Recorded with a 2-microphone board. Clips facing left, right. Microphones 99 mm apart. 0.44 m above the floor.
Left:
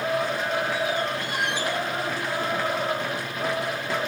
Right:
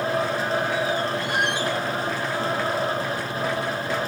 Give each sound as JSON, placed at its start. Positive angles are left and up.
{"t": 1.3, "sound": "a squeak", "side_deg": -70, "distance_m": 2.0}